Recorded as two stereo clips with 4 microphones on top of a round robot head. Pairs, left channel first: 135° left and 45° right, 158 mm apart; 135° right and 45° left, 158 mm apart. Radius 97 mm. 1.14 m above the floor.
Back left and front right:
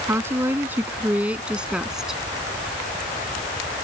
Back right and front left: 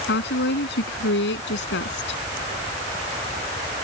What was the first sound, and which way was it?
A woman speaking, 120° right.